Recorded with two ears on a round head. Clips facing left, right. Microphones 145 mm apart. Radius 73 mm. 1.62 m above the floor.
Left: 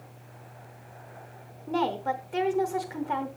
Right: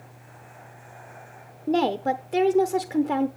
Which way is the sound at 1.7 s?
45° right (ahead or behind).